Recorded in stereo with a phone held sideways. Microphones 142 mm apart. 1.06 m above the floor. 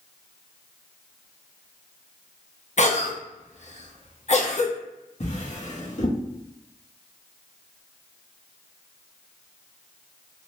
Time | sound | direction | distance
2.8 | a cough | 55° left (ahead or behind) | 0.7 m
5.2 | a drawer | 55° left (ahead or behind) | 0.8 m